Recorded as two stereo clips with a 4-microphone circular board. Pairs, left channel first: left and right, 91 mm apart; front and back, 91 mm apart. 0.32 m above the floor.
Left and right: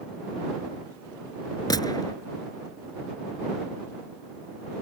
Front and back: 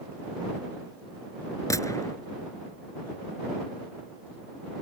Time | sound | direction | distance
1.7 | a gunshot | 50° left | ?